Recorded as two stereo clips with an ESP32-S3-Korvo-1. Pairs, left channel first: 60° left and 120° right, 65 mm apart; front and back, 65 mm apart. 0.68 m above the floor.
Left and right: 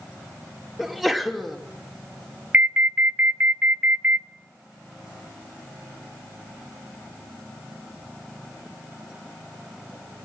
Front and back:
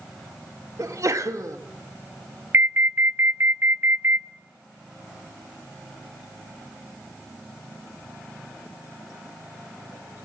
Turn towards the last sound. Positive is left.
turn(degrees=-160)